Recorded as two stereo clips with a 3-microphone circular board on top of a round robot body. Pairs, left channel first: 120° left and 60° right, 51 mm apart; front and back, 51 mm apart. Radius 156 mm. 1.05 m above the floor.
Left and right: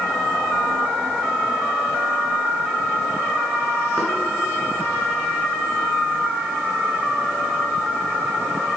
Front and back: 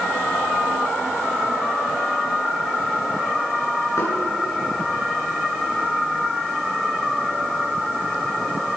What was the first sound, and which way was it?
Knocking, 40° left.